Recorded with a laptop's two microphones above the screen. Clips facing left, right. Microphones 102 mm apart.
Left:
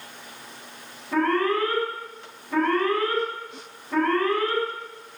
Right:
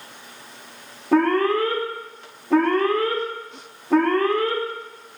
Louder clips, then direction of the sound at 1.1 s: Right 4 dB; 65° right (ahead or behind).